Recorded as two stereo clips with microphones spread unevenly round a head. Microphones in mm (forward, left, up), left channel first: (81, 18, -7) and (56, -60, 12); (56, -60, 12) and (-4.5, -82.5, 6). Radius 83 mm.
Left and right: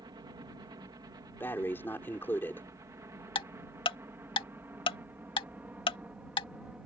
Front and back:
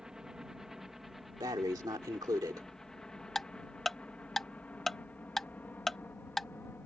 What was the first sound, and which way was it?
A helicopter, 80° right.